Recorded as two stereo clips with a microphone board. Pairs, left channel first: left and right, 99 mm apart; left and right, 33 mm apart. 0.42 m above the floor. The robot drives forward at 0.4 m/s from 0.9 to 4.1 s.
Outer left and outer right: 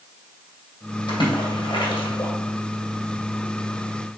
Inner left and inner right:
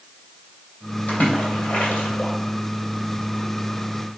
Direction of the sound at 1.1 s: 50° left (ahead or behind).